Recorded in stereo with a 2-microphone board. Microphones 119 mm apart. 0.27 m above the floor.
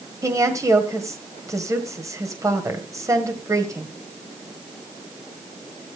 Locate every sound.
0.2 s a woman speaking: 25° right (ahead or behind), 1.5 m